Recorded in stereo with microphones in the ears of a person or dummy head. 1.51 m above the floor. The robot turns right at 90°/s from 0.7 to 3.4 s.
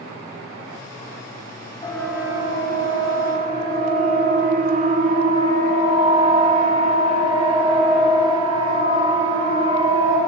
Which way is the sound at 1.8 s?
25° left (ahead or behind).